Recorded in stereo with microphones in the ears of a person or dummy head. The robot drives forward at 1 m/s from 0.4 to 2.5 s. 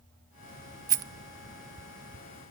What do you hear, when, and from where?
0.9 s a rattle: 20° right (ahead or behind), 0.7 m